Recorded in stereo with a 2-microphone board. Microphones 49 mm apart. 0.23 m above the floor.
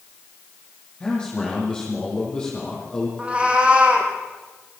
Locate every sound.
1.0 s a man speaking: 15° left (ahead or behind), 7 m
3.2 s a cat meowing: 25° right (ahead or behind), 3.5 m